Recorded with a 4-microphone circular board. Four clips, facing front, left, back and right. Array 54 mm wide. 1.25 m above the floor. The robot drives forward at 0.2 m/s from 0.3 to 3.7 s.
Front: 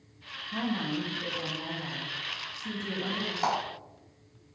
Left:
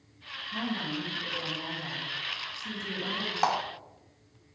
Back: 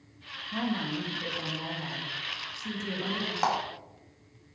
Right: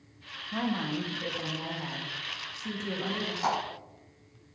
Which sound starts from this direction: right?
A woman speaking, at 0.5 s.